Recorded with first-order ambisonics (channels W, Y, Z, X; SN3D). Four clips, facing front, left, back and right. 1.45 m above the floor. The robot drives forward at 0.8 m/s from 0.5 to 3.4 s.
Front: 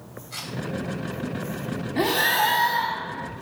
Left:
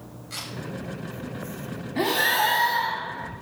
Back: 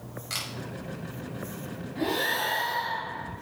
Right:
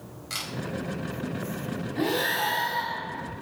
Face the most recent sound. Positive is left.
turn(degrees=70)